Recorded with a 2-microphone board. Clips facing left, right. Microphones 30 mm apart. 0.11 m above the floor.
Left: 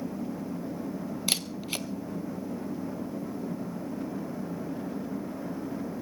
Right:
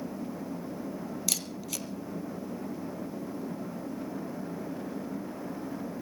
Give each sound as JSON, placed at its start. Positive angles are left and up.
{"t": 1.3, "sound": "a camera shutter", "side_deg": 40, "distance_m": 0.9}